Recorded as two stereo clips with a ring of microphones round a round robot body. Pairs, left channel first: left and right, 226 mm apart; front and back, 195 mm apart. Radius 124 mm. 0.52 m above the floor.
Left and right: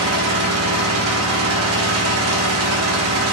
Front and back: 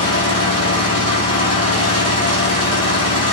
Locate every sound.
0.0 s an engine running: 65° right, 3.5 m